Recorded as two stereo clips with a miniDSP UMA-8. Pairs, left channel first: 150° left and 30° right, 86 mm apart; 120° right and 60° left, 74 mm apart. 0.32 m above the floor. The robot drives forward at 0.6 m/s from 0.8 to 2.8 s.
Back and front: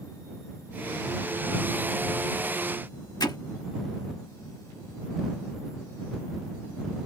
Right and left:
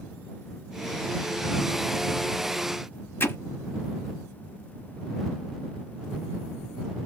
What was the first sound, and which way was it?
Hammering, straight behind.